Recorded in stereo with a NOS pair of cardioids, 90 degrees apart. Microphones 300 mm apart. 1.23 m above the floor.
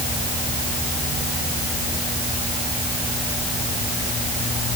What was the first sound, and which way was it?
Only background noise.